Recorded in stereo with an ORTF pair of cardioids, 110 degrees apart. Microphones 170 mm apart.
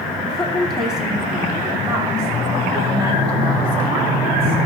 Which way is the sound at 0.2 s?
5° left.